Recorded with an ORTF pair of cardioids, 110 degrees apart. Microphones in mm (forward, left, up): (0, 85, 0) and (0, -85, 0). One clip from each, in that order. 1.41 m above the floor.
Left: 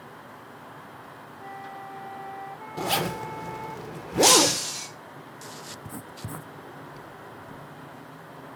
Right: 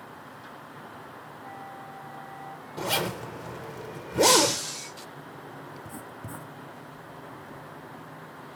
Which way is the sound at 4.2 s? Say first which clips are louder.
Left 2 dB; 50° left.